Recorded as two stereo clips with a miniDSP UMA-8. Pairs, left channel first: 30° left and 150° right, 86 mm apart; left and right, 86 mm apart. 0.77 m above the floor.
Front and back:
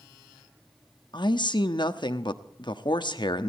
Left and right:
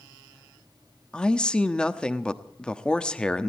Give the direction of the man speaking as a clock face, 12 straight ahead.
12 o'clock.